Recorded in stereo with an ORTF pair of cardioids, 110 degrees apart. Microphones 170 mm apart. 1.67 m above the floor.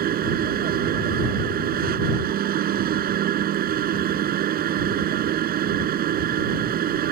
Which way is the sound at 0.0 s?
65° right.